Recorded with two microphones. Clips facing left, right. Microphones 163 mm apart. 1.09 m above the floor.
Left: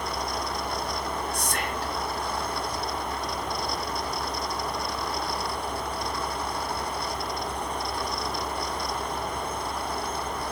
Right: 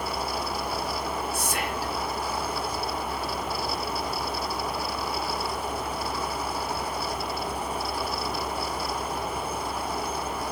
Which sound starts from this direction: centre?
Whispering, at 1.3 s.